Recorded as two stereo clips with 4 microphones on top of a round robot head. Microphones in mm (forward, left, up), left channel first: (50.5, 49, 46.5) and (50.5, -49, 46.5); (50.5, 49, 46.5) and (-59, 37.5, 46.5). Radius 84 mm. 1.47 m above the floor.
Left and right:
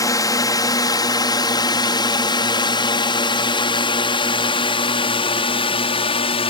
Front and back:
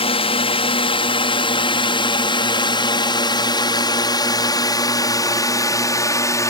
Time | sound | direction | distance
0.0 | a drone | 35° left | ?